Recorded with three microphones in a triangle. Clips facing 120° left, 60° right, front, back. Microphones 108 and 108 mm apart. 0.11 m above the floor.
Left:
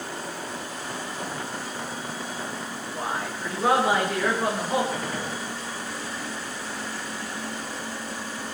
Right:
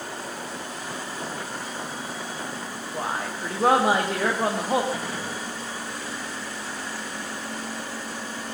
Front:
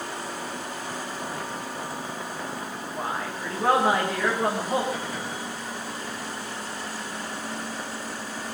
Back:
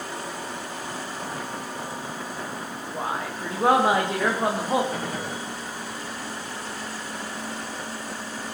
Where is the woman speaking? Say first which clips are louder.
Right 1 dB, back 2 dB; 115° right, 7.5 m.